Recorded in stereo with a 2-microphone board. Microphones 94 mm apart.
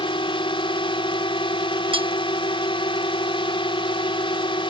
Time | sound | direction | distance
0.0 | a drone | 65° left (ahead or behind) | ?
1.9 | cutlery clinking | 65° right (ahead or behind) | ?